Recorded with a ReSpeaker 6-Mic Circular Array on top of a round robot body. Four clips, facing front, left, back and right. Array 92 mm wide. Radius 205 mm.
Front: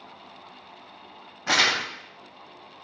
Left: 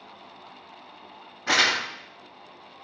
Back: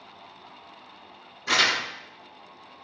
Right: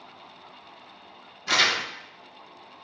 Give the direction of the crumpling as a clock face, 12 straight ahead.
11 o'clock.